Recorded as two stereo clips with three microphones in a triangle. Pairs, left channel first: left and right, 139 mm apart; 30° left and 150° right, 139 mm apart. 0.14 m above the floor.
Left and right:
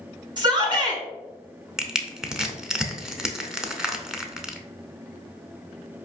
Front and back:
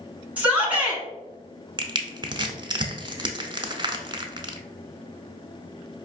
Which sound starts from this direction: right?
A shout, at 0.4 s.